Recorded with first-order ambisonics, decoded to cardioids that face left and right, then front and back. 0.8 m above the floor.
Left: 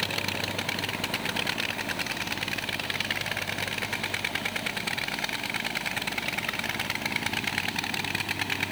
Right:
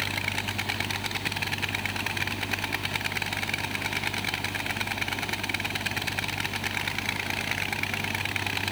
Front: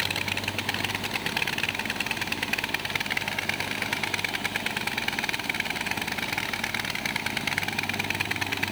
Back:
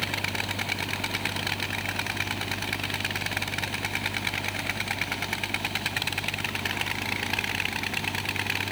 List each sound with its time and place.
Only background noise.